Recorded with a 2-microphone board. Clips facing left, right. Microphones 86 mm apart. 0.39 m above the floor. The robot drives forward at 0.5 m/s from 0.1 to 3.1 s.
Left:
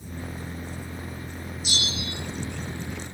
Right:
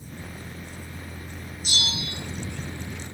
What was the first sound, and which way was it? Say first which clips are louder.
A bell: right 1 dB; 45° right (ahead or behind).